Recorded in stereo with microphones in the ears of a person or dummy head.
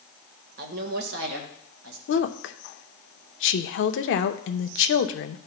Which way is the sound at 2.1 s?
60° left (ahead or behind).